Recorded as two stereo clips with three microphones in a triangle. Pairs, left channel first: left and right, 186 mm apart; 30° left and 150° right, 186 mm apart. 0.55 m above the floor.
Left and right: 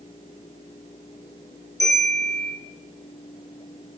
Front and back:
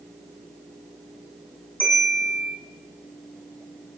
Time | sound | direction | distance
1.8 | a bell | 110° left | 9 m